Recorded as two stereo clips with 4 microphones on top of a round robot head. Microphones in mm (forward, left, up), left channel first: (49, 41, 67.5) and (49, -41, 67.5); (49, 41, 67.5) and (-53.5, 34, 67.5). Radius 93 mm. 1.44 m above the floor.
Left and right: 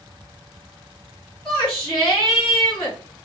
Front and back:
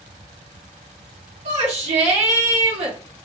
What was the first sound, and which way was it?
A shout, 175° left.